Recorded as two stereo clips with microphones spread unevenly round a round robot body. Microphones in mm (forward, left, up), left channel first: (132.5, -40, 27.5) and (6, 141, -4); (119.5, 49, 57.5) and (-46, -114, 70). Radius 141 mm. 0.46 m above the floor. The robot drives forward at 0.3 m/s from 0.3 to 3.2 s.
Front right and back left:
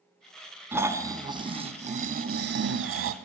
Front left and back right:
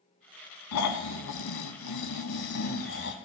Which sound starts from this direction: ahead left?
Snoring, at 0.7 s.